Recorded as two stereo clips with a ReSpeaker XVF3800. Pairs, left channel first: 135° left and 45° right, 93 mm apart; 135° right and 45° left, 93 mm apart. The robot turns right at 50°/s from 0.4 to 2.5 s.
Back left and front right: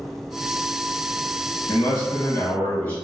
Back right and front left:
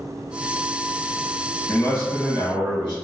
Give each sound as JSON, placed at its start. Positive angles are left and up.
{"t": 1.7, "sound": "a man speaking", "azimuth_deg": 160, "distance_m": 1.7}